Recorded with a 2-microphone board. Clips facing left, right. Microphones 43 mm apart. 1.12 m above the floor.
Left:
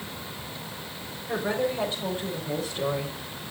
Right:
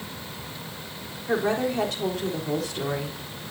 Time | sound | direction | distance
1.3 | a woman speaking | 80° right | 3.5 m